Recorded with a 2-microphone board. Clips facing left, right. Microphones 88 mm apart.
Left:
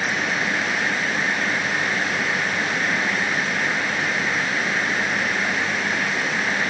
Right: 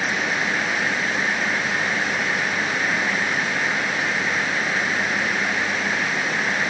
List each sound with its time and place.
Only background noise.